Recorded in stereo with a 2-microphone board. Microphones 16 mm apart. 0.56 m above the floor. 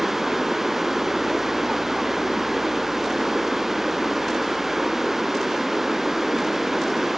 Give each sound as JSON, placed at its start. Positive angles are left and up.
{"t": 0.0, "sound": "running water", "side_deg": -15}